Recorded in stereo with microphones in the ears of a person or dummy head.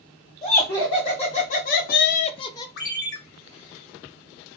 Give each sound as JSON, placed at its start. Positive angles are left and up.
{"t": 0.4, "sound": "laughter", "side_deg": 20, "distance_m": 1.4}
{"t": 2.8, "sound": "a ringtone", "side_deg": 60, "distance_m": 0.7}